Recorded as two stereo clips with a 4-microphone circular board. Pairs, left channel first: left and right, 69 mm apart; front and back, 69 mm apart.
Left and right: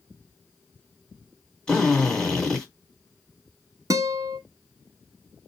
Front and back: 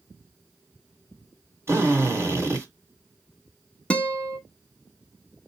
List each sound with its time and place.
1.7 s a drill: 165° left, 1.8 m
3.9 s a guitar: 70° right, 0.7 m